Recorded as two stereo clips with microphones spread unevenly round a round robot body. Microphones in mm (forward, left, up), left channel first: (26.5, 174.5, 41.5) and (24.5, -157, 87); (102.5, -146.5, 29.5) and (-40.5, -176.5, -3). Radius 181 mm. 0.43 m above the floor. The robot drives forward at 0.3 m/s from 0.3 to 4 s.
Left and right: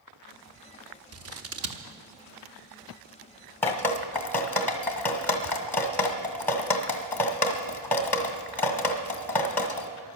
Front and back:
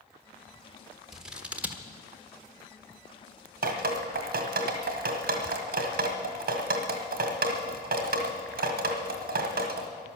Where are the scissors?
105° right, 1.3 m; by 1.8 s 120° right, 1.3 m.